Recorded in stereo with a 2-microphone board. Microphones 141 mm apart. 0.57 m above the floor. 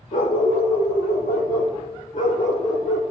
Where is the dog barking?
75° left (ahead or behind), 4.5 m; by 3.0 s 60° left (ahead or behind), 4.5 m.